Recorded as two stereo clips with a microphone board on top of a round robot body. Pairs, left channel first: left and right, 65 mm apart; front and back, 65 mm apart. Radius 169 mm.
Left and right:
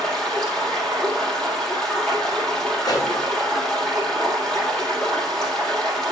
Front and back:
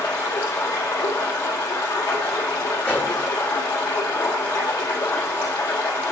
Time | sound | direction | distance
0.0 | running water | 10° left | 2.5 m
2.8 | a pop | 70° left | 2 m